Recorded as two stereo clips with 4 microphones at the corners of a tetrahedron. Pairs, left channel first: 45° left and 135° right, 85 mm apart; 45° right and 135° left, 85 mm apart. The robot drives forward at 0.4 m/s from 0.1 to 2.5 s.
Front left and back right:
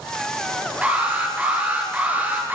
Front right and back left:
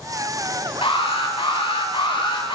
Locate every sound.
0.8 s an alarm: 60° right, 10 m; by 2.6 s 65° right, 9.5 m